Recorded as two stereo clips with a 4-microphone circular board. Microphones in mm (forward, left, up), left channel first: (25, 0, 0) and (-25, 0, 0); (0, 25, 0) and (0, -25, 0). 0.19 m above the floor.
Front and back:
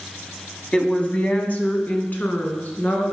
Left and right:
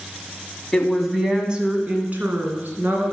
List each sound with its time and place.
0.7 s a woman speaking: 25° left, 1.2 m; by 3.1 s 55° right, 2.5 m